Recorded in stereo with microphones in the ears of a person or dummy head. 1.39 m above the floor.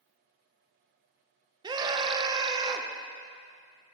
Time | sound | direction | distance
1.6 | a scream | 20° right (ahead or behind) | 0.5 m